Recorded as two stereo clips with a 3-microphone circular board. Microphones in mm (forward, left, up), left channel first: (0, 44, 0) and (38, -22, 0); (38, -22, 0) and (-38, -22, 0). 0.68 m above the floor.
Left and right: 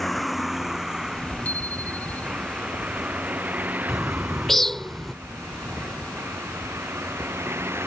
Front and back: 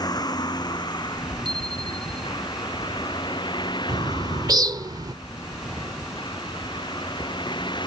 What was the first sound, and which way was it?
A vehicle, 30° left.